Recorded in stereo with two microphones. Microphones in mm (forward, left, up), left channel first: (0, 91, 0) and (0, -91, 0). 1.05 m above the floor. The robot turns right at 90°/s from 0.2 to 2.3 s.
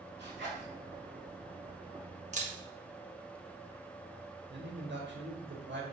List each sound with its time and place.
0.2 s a zipper: 70° right (ahead or behind), 2 m
2.3 s a camera shutter: 40° right (ahead or behind), 1.3 m
4.5 s a man speaking: 85° right, 1.7 m